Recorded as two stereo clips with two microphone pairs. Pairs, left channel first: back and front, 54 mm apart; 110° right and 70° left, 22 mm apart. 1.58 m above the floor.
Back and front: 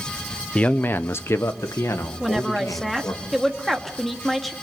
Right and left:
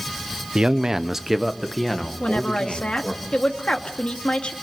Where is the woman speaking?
90° right, 2.5 m.